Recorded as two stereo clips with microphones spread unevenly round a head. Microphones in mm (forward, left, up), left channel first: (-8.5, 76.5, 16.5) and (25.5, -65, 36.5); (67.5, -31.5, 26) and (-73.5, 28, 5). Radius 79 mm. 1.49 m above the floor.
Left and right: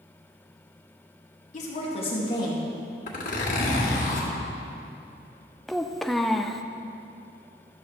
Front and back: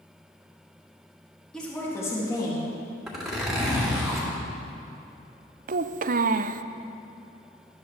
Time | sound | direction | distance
1.5 | a woman speaking | 65° left | 2 m
3.1 | a zipper | 65° left | 2.5 m
5.7 | a child speaking | 165° right | 0.5 m